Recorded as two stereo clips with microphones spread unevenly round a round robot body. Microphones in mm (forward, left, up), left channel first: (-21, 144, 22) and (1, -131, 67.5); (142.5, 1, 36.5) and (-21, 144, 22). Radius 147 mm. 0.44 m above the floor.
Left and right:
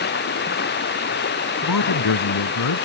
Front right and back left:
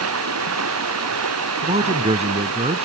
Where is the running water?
145° left.